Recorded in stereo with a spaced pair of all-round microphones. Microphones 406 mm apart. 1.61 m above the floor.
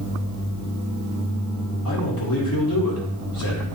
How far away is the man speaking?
About 2.5 m.